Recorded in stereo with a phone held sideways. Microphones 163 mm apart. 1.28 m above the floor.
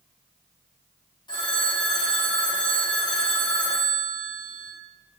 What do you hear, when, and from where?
1.3 s a phone ringing: 25° left (ahead or behind), 0.7 m